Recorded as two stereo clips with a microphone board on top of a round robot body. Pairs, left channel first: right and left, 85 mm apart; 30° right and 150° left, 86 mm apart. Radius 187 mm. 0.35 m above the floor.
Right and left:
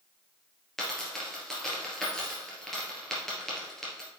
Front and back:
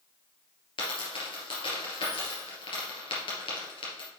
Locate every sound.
0.8 s a dropped coin: 5° right, 2.5 m